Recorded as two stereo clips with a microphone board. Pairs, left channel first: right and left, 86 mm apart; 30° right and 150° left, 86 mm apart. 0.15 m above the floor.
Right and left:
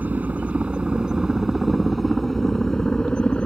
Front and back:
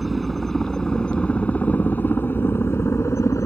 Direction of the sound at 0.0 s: 65° left.